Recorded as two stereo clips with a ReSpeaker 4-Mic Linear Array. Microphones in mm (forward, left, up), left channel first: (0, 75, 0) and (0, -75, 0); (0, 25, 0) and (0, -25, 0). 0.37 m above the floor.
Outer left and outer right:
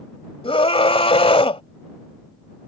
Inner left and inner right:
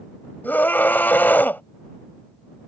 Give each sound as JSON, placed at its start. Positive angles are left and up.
{"t": 0.4, "sound": "a scream", "side_deg": 40}